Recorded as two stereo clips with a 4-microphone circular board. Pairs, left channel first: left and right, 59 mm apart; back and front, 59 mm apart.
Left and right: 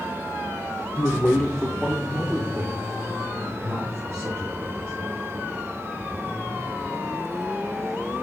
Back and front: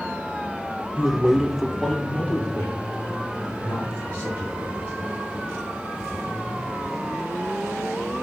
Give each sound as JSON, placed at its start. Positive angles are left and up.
{"t": 1.0, "sound": "a man speaking", "azimuth_deg": 50, "distance_m": 0.9}